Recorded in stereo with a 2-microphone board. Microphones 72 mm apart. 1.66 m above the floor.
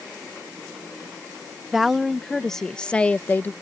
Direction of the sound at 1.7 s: 5° right (ahead or behind).